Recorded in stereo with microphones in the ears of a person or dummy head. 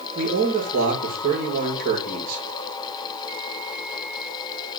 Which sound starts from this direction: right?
A man speaking, at 0.1 s.